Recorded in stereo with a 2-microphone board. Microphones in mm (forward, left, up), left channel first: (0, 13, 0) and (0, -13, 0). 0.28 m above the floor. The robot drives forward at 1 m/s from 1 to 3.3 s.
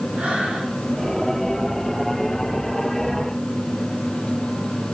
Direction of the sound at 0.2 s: 80° right.